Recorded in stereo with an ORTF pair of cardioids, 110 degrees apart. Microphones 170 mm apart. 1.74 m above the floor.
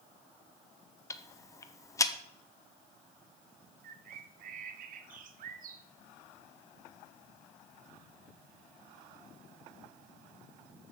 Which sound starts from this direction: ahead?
Ticking, at 1.1 s.